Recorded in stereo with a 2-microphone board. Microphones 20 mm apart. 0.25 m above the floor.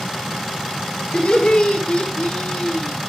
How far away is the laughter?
About 5.5 m.